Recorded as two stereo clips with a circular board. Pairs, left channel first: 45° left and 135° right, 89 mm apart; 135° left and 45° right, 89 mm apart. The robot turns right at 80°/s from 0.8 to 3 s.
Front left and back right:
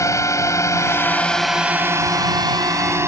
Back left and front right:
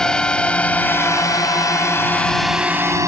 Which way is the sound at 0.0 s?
60° left.